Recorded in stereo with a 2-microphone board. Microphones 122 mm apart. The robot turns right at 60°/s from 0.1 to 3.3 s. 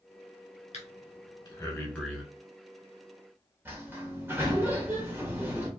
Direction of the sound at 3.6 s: 20° right (ahead or behind).